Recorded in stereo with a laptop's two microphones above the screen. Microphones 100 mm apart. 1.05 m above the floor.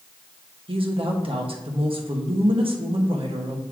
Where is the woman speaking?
60° right (ahead or behind), 1.2 m.